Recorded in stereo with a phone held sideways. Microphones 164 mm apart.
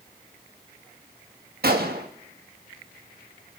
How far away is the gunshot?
About 1.3 m.